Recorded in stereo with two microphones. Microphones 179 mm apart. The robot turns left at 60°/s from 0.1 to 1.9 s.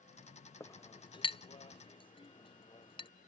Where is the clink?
15° left (ahead or behind); by 3.1 s 30° left (ahead or behind).